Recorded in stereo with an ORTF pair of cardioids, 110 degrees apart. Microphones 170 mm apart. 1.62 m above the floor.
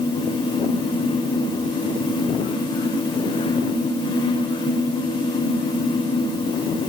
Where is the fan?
25° left, 7 m.